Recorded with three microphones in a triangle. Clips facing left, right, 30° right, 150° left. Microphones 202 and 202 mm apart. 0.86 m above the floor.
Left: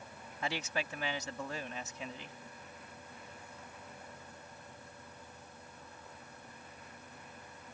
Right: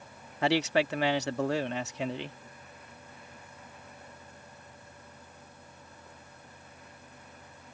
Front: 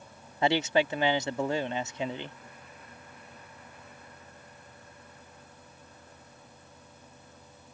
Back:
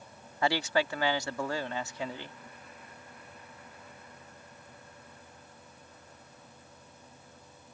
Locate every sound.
0.4 s a man speaking: 100° right